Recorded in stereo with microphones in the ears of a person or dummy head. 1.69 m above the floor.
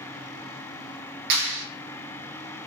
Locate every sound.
1.3 s a clap: 70° right (ahead or behind), 2 m